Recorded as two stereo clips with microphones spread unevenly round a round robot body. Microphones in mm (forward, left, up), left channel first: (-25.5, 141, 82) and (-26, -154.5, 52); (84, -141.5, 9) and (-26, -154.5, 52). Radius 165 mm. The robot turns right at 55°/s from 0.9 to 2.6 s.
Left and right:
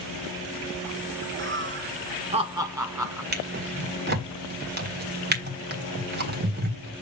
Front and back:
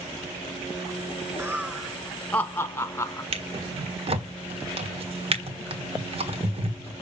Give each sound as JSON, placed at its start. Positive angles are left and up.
{"t": 1.4, "sound": "laughter", "azimuth_deg": -90, "distance_m": 1.2}
{"t": 3.3, "sound": "a drawer", "azimuth_deg": -150, "distance_m": 1.4}